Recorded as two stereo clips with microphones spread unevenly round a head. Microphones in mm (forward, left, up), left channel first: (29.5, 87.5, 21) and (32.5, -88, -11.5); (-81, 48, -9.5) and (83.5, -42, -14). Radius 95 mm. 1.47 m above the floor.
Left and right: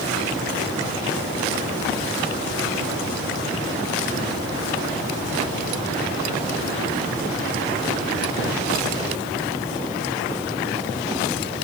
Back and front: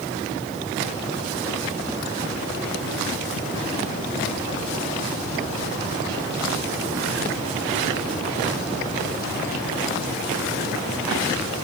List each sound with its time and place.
Only background noise.